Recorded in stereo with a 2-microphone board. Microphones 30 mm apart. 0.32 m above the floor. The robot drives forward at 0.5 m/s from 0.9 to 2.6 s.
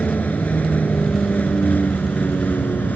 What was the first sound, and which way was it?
A vehicle, 60° left (ahead or behind).